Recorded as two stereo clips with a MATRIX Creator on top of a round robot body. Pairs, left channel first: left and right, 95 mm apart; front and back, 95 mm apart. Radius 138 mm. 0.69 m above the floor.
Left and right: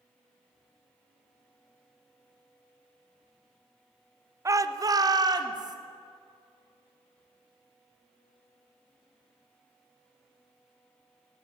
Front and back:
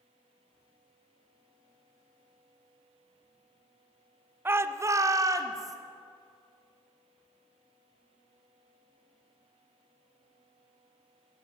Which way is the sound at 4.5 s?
125° right.